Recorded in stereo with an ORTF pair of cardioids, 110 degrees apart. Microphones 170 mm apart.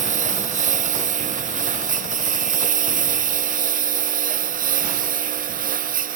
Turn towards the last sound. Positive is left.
turn(degrees=-55)